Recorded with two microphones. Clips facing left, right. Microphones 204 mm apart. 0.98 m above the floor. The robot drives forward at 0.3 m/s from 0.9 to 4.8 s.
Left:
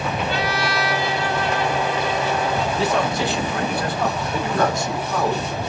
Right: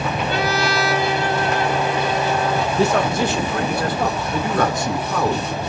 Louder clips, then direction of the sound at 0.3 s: Right 3 dB; 45° right (ahead or behind).